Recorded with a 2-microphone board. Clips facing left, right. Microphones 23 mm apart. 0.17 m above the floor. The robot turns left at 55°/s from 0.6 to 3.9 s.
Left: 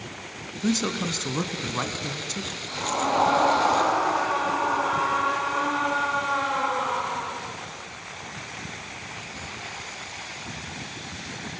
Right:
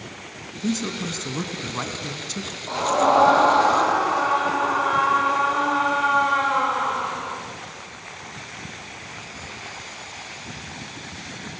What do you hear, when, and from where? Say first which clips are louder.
0.6 s a man speaking: left 1 dB; 65° left, 1.2 m; by 2.6 s 40° right, 1.2 m
2.7 s a scream: right 7 dB; 95° right, 7 m; by 7.4 s 165° right, 7 m